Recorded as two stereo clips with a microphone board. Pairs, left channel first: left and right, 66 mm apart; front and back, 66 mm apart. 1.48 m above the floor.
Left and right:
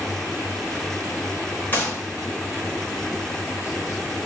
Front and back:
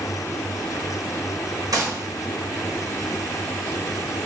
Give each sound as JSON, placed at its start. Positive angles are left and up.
{"t": 1.7, "sound": "a gunshot", "azimuth_deg": 150, "distance_m": 0.9}